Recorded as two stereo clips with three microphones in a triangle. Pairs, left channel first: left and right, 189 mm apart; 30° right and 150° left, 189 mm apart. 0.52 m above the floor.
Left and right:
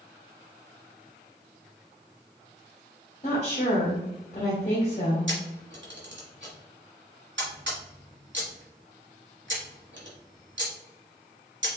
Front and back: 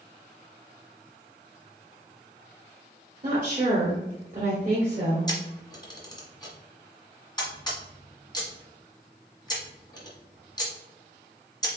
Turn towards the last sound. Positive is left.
turn(degrees=-100)